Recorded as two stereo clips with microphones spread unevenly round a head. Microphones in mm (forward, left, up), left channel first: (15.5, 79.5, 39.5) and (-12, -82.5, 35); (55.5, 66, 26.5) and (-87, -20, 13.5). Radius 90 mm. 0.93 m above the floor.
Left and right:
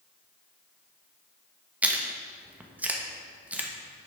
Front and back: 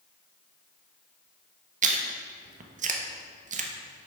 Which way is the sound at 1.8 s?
Straight behind.